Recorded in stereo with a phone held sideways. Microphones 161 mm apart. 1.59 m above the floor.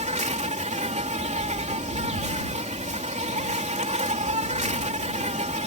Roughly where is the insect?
Right.